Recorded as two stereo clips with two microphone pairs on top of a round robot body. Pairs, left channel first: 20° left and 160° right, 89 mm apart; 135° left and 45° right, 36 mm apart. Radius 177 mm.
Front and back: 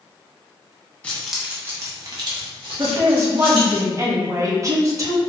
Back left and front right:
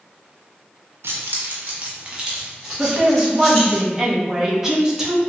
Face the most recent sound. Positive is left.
turn(degrees=-120)